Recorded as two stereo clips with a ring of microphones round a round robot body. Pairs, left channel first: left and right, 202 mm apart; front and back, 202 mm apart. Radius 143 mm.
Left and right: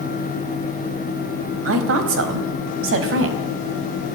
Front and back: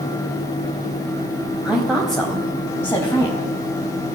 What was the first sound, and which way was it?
A woman speaking, 95° right.